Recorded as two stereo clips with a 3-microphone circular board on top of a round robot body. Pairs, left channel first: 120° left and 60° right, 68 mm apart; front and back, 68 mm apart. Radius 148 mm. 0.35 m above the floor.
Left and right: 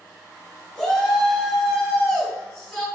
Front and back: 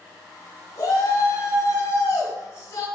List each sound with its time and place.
0.8 s a shout: 45° left, 4 m; by 2.9 s 50° left, 5 m